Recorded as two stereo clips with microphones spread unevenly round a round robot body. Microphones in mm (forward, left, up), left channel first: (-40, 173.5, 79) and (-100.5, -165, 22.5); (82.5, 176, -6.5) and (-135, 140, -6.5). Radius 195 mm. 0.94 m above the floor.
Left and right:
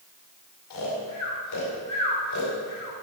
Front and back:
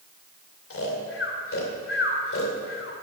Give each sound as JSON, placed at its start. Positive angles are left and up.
{"t": 0.7, "sound": "snoring", "azimuth_deg": 30, "distance_m": 2.5}